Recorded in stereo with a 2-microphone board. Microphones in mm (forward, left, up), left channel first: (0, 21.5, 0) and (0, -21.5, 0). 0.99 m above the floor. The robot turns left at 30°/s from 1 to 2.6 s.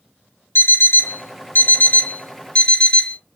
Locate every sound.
0.6 s an alarm clock: 75° left, 0.5 m; by 3.2 s 30° left, 0.5 m